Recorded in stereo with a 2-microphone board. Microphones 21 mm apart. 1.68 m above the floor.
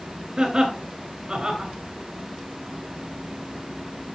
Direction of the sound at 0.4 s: 35° right (ahead or behind).